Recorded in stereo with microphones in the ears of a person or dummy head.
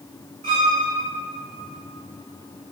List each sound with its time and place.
0.4 s a violin: 30° right (ahead or behind), 2.5 m